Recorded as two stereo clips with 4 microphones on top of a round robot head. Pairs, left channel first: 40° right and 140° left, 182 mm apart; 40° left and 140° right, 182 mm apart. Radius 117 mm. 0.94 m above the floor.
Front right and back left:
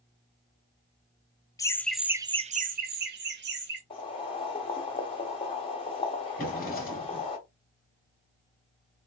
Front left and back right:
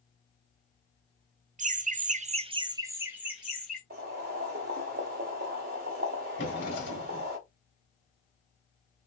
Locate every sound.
1.6 s laughter: 105° right, 0.7 m; by 3.8 s 130° left, 1.3 m
3.9 s boiling: 100° right, 1.4 m
6.4 s a drawer: 5° left, 2 m